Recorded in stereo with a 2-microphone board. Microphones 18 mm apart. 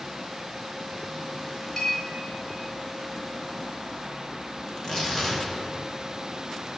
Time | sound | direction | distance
1.8 | a clink | 25° left (ahead or behind) | 3 m
4.7 | tearing paper | 30° left (ahead or behind) | 2.5 m